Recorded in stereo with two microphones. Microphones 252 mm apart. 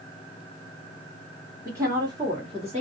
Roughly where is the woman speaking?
Centre.